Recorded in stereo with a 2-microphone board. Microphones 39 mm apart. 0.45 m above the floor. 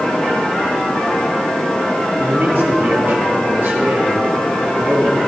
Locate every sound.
2.2 s a man speaking: 70° right (ahead or behind), 3.5 m